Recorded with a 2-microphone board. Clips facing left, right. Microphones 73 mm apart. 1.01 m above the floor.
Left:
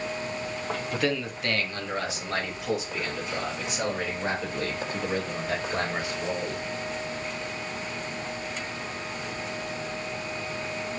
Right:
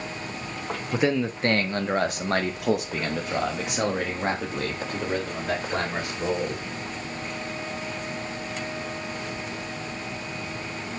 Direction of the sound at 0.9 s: 15° right (ahead or behind).